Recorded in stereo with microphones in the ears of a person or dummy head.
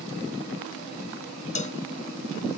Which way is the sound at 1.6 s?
30° left (ahead or behind).